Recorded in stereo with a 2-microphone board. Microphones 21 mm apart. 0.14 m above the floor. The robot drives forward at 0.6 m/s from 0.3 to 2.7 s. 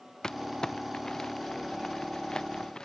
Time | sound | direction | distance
0.2 | crumpling | 30° left (ahead or behind) | ?